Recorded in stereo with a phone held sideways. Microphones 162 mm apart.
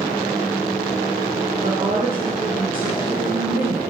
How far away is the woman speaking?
About 2.5 m.